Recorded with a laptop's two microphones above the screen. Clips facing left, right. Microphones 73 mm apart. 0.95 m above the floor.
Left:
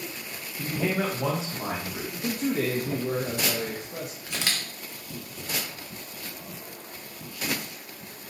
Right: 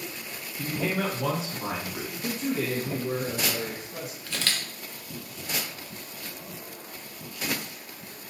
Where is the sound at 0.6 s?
Centre (ahead or behind), 0.8 m; by 2.0 s 30° left (ahead or behind), 1.9 m.